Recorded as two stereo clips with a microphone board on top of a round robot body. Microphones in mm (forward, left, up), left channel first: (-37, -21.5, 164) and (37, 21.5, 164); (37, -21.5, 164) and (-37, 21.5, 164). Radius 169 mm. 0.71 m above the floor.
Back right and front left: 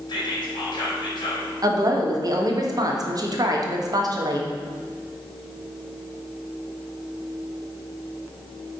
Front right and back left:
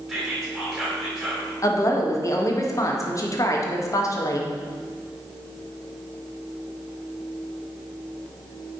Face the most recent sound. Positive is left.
turn(degrees=5)